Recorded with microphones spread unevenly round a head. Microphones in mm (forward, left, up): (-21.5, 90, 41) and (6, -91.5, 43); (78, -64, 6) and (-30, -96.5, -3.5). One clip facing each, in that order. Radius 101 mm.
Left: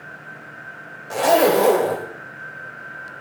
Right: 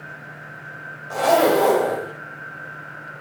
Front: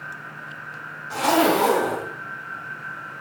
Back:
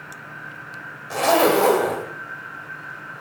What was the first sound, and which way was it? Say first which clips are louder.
A zipper: left 1 dB, back 2 dB; 160° left.